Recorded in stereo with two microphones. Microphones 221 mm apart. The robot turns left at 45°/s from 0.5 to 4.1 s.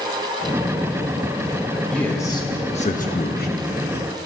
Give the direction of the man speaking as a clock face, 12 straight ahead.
6 o'clock.